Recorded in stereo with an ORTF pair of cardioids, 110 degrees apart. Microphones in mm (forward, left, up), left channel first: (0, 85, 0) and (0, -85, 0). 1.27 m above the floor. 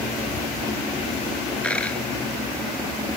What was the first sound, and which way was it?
A dropped coin, 5° left.